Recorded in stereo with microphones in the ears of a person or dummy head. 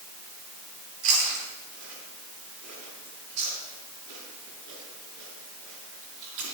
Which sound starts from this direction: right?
Chewing, at 1.0 s.